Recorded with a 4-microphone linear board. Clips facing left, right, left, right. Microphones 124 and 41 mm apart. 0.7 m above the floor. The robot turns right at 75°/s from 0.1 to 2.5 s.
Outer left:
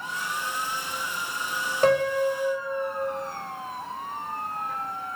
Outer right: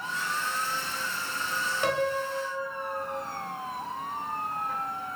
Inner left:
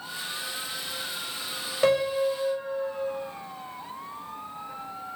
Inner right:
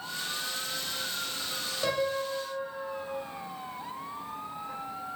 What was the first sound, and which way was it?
A piano, 45° left.